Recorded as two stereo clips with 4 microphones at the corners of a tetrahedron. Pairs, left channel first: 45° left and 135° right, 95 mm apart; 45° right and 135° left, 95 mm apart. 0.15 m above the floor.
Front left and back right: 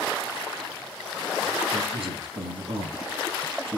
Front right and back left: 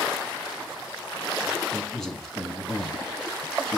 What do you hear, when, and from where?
1.7 s a man speaking: 130° right, 3 m